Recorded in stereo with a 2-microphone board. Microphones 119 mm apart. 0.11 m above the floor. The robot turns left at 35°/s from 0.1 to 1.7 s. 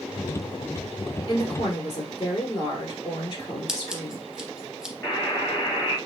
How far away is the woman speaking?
About 1.5 m.